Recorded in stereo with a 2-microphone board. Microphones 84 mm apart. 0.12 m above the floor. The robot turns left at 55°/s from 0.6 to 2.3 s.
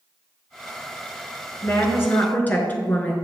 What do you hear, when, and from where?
1.6 s a woman speaking: 80° left, 1.4 m; by 3.1 s 40° left, 1.4 m